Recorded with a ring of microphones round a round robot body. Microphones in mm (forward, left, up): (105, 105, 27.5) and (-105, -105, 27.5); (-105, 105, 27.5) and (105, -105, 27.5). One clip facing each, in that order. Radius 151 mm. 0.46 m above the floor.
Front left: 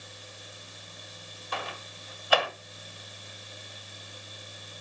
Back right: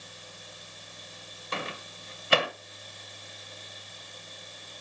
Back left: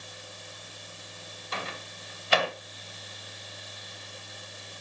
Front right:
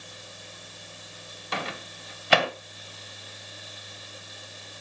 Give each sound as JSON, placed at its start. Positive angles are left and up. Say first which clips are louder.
{"t": 1.5, "sound": "a microwave", "louder": "back right 2 dB, front right 5 dB", "azimuth_deg": -70, "distance_m": 2.0}